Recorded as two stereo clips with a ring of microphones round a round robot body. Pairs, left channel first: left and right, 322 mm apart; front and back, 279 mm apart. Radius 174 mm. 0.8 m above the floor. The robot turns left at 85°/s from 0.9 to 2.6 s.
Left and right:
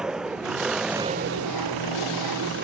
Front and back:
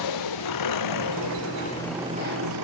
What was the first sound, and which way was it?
An engine running, straight ahead.